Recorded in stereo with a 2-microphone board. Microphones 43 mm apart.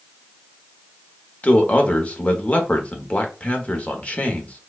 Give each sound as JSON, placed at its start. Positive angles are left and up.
{"t": 1.4, "sound": "a man speaking", "side_deg": 35, "distance_m": 1.1}